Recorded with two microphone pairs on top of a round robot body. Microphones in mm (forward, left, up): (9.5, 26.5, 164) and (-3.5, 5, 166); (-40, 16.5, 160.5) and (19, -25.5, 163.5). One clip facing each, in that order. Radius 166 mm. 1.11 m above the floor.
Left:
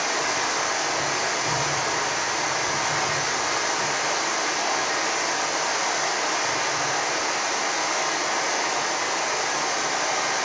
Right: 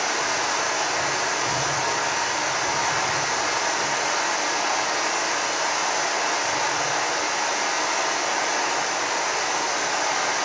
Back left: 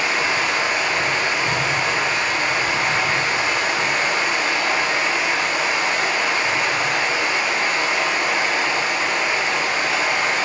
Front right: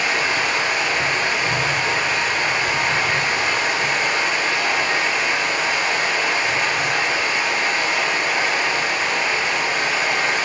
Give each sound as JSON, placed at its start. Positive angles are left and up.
{"t": 0.0, "sound": "running water", "azimuth_deg": -105, "distance_m": 1.8}